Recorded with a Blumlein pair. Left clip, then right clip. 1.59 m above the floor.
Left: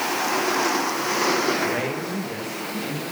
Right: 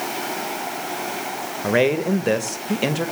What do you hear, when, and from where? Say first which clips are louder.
1.6 s a man speaking: right 6 dB; 25° right, 2.5 m; by 3.1 s 55° right, 2.5 m